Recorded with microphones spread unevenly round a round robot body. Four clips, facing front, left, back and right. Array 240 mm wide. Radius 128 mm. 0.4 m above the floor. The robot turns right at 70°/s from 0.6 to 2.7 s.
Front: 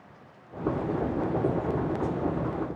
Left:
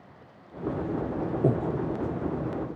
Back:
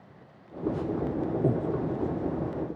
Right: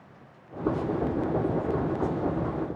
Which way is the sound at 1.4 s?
80° left.